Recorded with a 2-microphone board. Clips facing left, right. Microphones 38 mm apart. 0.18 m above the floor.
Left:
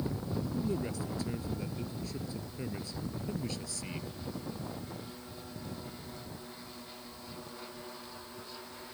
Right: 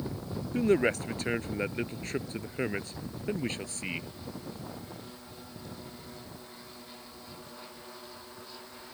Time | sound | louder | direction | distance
0.5 | a man speaking | right 13 dB | 70° right (ahead or behind) | ?